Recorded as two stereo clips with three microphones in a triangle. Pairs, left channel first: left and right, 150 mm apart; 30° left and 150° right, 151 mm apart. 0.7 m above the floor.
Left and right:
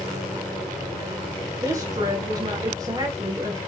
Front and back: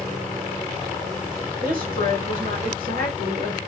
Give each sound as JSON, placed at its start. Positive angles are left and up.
{"t": 1.6, "sound": "a woman speaking", "azimuth_deg": -150, "distance_m": 4.0}